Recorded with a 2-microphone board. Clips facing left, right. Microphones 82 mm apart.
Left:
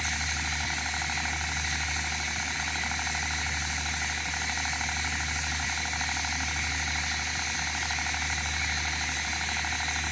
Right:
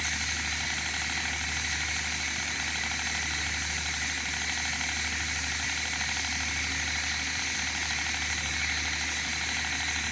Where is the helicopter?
25° left (ahead or behind).